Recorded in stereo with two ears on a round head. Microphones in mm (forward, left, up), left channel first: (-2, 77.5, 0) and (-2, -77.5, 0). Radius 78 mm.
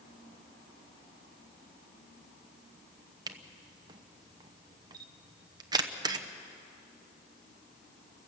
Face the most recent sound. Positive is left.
turn(degrees=-20)  # may be behind; listen again after turning